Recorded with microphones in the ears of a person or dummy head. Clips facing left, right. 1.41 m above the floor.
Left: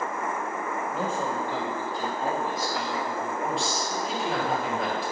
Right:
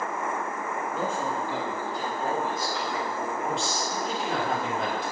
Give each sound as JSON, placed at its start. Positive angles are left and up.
{"t": 0.9, "sound": "a man speaking", "side_deg": 65, "distance_m": 1.7}
{"t": 3.4, "sound": "a man speaking", "side_deg": 0, "distance_m": 0.9}